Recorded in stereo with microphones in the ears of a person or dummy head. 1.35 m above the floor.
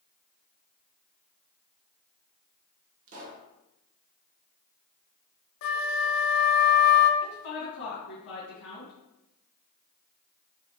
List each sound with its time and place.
3.1 s a pop: 35° right (ahead or behind), 0.7 m
5.6 s a flute: 65° left (ahead or behind), 0.5 m
7.2 s a woman speaking: 80° left, 2.0 m